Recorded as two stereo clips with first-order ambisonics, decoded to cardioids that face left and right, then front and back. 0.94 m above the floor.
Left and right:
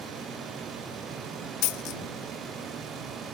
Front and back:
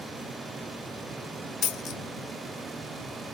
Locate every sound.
1.6 s a dropped coin: 55° left